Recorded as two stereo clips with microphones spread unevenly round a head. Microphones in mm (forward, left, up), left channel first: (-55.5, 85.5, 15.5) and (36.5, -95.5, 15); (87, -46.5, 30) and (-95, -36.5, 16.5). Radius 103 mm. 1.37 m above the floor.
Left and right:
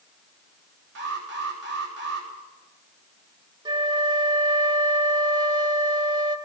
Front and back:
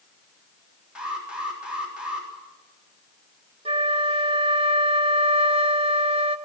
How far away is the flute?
About 1.5 m.